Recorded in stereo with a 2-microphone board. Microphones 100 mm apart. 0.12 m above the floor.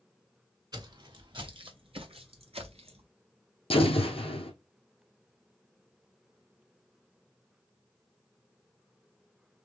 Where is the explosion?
65° left (ahead or behind), 2.5 m.